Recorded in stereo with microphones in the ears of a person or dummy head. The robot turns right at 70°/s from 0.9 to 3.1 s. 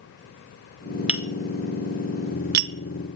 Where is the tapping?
10° right (ahead or behind), 0.7 m; by 2.7 s 50° right (ahead or behind), 0.7 m.